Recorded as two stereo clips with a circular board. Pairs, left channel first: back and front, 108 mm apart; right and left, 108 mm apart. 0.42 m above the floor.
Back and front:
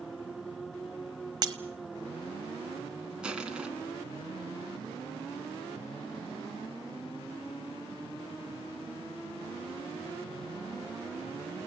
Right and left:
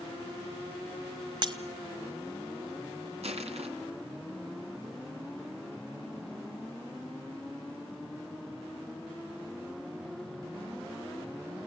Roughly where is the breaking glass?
Ahead left.